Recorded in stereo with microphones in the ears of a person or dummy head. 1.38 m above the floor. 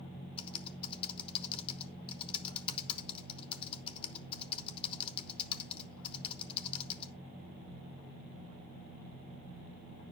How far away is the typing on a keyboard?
About 1.0 m.